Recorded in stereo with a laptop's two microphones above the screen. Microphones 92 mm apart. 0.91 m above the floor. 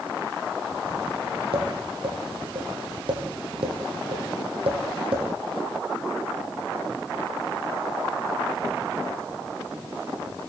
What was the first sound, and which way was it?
Tapping, 65° right (ahead or behind).